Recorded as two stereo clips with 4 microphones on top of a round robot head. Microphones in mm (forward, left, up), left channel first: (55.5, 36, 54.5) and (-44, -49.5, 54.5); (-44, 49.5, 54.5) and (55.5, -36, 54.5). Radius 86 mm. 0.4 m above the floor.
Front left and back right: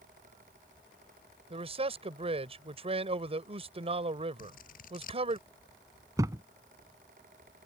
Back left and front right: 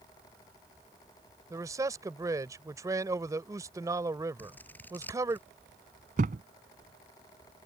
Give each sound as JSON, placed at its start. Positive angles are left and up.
{"t": 1.5, "sound": "a man speaking", "azimuth_deg": -105}
{"t": 4.4, "sound": "scissors", "azimuth_deg": 60}
{"t": 6.2, "sound": "a thud", "azimuth_deg": -70}